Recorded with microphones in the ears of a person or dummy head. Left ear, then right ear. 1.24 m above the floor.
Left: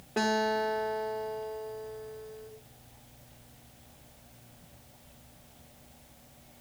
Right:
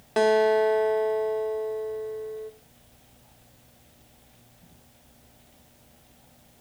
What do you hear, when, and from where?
0.2 s a guitar: 25° right (ahead or behind), 0.9 m